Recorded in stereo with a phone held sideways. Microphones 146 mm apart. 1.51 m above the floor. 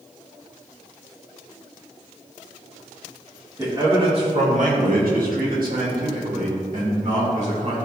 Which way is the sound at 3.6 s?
20° right (ahead or behind).